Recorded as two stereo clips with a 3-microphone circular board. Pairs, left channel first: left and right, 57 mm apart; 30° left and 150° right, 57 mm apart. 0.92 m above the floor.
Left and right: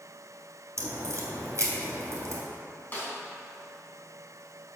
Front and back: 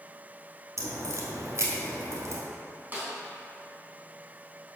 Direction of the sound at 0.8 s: 130° right.